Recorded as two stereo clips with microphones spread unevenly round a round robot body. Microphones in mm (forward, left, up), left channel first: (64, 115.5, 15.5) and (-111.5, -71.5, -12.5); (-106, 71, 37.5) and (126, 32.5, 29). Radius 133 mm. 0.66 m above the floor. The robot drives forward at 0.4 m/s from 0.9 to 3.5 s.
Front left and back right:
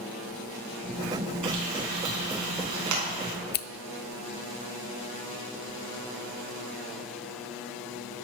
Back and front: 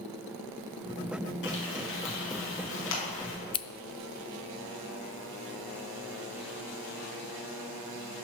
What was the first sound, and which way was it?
Frying, 140° right.